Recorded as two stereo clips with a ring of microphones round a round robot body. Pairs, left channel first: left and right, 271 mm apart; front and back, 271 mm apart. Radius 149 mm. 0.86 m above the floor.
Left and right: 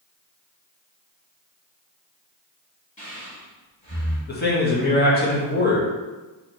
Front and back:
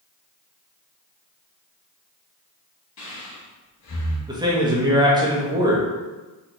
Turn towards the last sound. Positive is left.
turn(degrees=115)